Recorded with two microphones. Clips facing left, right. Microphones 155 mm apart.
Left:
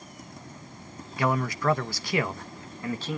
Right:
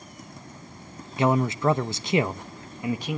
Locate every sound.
1.2 s a man speaking: 25° right (ahead or behind), 0.8 m; by 3.2 s 15° right (ahead or behind), 1.1 m